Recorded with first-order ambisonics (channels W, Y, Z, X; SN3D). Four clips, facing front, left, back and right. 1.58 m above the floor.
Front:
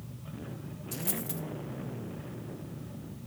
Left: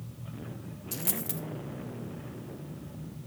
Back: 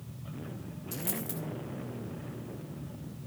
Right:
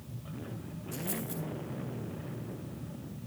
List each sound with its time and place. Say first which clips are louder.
0.9 s a dropped coin: left 1 dB, front 1 dB; 95° left, 2 m